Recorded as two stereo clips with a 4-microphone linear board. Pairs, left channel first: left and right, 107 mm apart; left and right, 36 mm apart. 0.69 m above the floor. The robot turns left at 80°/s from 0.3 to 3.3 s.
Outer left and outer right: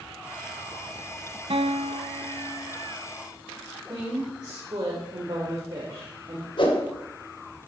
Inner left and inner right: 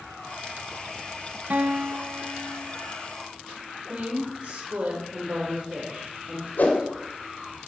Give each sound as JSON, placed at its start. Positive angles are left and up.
{"t": 1.5, "sound": "a guitar", "azimuth_deg": -60, "distance_m": 1.1}
{"t": 3.9, "sound": "a woman speaking", "side_deg": -40, "distance_m": 3.0}
{"t": 6.6, "sound": "a whoosh", "side_deg": 50, "distance_m": 2.0}